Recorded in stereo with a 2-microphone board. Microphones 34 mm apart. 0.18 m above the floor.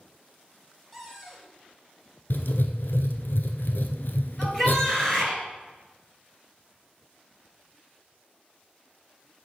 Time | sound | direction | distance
0.9 | a cupboard door | 5° left (ahead or behind) | 1.4 m
2.3 | writing | 70° left (ahead or behind) | 0.6 m
4.4 | a shout | 10° left (ahead or behind) | 3 m